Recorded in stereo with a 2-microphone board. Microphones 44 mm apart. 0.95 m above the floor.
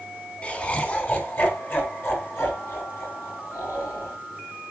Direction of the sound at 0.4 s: 30° left (ahead or behind).